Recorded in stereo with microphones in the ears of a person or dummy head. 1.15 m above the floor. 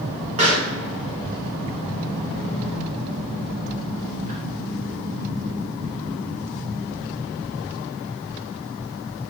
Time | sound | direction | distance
0.4 | a pop | 35° right (ahead or behind) | 2.5 m